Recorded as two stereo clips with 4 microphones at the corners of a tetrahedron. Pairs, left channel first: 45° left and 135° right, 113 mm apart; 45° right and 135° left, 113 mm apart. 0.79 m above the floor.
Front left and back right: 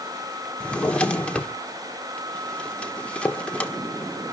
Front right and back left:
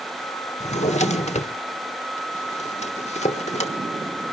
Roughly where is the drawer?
Ahead right.